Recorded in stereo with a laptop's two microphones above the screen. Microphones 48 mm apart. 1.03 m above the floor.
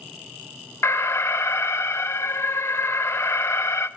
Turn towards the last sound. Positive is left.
turn(degrees=60)  # may be behind; listen again after turning